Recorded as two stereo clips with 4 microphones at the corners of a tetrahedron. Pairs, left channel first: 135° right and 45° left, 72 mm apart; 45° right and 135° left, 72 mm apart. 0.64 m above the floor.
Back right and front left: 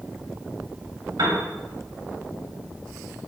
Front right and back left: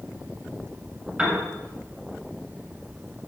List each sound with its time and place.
1.2 s a piano: 60° left, 2 m